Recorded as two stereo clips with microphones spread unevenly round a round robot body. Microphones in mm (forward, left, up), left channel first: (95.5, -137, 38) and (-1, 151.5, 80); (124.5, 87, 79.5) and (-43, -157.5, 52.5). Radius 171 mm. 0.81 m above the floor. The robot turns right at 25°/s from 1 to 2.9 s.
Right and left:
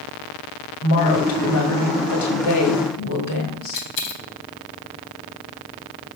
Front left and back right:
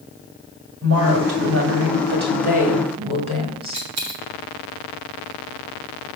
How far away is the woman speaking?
About 2 m.